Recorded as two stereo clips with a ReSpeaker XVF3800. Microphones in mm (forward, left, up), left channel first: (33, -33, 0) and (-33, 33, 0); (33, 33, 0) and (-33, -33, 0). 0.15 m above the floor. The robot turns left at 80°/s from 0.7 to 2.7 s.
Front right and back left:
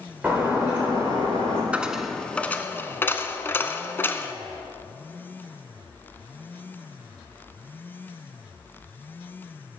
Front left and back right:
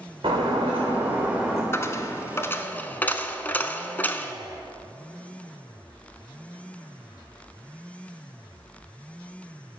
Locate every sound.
0.2 s breaking glass: 150° right, 4.5 m; by 1.6 s 135° left, 4.5 m
1.7 s a dropped coin: 70° left, 0.7 m; by 4.3 s 5° right, 0.7 m